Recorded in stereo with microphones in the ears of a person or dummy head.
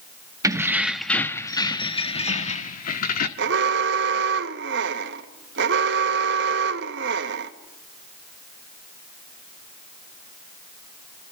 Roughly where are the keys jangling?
Centre.